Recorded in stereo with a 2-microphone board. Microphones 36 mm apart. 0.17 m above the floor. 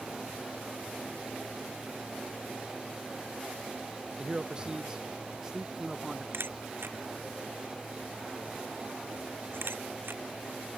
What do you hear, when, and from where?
4.2 s a man speaking: 25° right (ahead or behind); by 6.2 s 10° right (ahead or behind)
6.3 s a camera shutter: 75° right (ahead or behind)